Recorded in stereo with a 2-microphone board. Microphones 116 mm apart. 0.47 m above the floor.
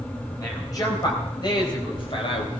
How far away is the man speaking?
About 3 m.